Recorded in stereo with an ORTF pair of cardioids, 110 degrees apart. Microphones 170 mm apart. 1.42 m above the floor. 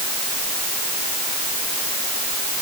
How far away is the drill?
No drill in this recording.